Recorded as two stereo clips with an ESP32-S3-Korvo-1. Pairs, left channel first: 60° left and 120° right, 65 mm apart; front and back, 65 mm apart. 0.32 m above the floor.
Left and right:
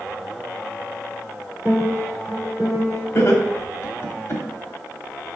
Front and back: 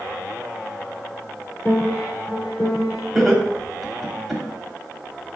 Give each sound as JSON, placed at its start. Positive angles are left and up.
{"t": 1.6, "sound": "a piano", "azimuth_deg": -60, "distance_m": 2.5}
{"t": 3.1, "sound": "laughter", "azimuth_deg": 90, "distance_m": 1.3}